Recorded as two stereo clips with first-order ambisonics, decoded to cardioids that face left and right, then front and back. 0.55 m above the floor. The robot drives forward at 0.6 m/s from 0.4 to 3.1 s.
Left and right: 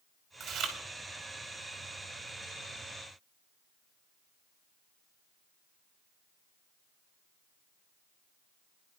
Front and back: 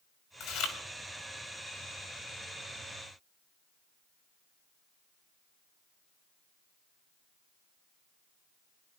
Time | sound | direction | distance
0.4 | chewing | 30° right | 2.5 m